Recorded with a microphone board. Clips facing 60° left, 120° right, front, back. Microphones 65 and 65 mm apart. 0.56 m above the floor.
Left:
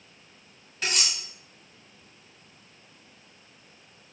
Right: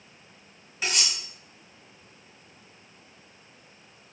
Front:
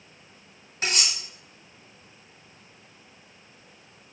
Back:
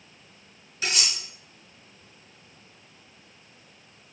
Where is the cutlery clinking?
40° right, 1.6 m.